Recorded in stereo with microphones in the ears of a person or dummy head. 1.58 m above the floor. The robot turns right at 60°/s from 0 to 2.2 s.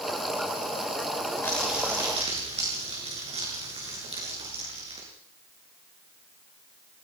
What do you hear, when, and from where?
1.4 s crumpling: 165° left, 7 m; by 5.1 s 150° right, 7 m